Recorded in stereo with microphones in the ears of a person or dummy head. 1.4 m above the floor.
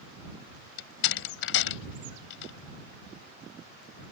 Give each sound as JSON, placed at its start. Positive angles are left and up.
{"t": 0.8, "sound": "a door slam", "side_deg": 75}